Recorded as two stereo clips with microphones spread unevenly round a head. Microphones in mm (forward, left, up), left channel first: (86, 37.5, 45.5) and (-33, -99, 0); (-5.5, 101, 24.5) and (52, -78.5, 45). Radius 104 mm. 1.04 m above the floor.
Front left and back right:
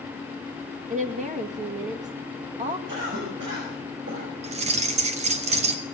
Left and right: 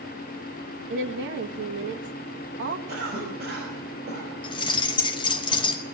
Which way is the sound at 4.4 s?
175° left.